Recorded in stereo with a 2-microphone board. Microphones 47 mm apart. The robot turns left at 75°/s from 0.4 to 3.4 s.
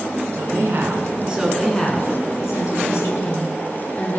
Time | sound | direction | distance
0.3 | a woman speaking | 95° right | 8.5 m